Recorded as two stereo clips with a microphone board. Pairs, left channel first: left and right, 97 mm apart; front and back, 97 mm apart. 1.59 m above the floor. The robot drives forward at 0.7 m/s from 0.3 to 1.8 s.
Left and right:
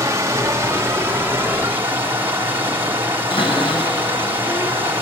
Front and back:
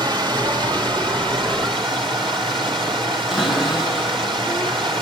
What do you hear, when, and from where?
0.0 s running water: 145° right, 2.5 m; by 5.0 s 155° right, 3.5 m
3.3 s a cupboard door: 95° left, 6 m